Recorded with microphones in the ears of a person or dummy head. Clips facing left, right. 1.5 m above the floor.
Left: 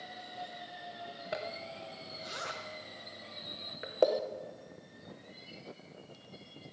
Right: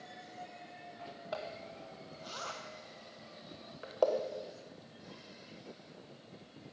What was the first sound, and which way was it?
A zipper, 20° left (ahead or behind).